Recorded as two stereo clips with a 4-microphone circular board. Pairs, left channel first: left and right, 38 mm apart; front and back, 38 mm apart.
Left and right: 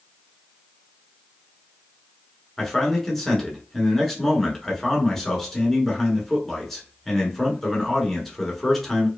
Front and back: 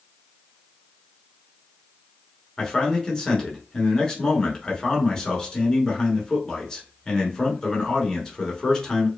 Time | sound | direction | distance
2.6 | a man speaking | 20° left | 1.1 m